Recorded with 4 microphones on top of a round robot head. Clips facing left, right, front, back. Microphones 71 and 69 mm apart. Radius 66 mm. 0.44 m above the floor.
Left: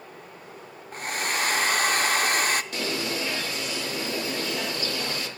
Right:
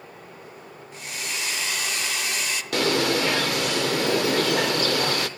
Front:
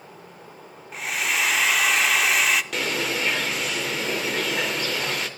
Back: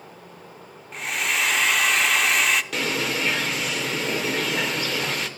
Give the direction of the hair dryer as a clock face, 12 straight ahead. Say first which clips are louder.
Left 6 dB, even; 9 o'clock.